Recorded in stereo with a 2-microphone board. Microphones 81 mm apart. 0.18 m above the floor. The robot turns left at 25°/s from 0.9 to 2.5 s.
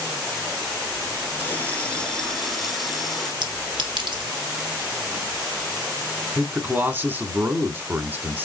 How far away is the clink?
About 2.5 m.